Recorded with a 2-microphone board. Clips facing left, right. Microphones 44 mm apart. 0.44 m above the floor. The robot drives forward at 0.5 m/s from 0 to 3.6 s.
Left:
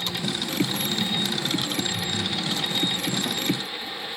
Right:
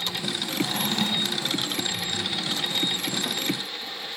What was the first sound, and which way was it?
A drawer, 65° right (ahead or behind).